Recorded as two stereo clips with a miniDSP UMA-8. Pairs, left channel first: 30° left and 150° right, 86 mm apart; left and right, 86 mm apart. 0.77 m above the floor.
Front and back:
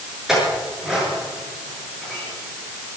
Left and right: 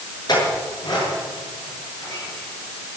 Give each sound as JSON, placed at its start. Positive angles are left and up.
{"t": 0.3, "sound": "a clink", "azimuth_deg": 125, "distance_m": 7.5}